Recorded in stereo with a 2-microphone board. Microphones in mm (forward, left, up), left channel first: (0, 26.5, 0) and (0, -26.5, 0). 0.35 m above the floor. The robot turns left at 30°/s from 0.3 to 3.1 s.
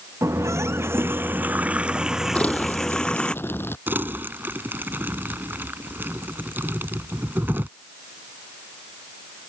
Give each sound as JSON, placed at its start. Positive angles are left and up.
{"t": 0.2, "sound": "a running tap", "azimuth_deg": -110}
{"t": 2.4, "sound": "crumpling", "side_deg": 20}
{"t": 3.9, "sound": "crumpling", "side_deg": -40}